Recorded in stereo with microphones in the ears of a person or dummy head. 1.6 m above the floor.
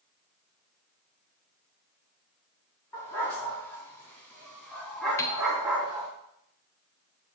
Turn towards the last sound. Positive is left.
turn(degrees=15)  # may be behind; listen again after turning